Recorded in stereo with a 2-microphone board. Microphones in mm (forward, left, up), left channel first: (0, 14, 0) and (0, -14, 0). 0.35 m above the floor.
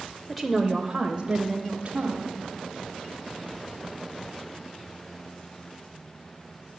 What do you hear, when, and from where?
0.3 s a woman speaking: centre (ahead or behind), 0.9 m; by 2.3 s 45° right (ahead or behind), 1.7 m